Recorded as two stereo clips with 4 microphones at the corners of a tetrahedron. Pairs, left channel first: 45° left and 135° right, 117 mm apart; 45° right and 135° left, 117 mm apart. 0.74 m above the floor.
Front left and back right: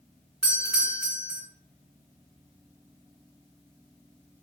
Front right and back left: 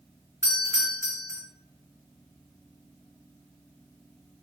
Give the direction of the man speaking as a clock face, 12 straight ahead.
No man speaking in this recording.